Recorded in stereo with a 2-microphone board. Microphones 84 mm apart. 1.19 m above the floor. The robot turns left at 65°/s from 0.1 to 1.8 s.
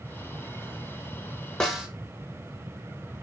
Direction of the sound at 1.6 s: 5° left (ahead or behind).